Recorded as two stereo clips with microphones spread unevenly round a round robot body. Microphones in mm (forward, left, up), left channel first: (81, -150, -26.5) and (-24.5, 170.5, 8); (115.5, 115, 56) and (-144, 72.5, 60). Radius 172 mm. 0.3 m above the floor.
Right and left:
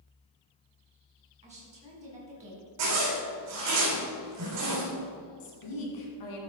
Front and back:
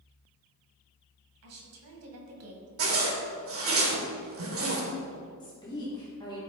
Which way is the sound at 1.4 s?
Straight behind.